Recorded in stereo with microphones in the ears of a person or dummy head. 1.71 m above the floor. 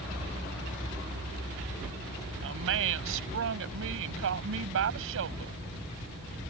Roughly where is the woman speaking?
Right.